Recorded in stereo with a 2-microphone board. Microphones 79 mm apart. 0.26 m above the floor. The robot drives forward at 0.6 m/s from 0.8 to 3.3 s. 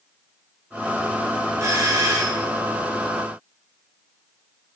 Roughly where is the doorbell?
Right.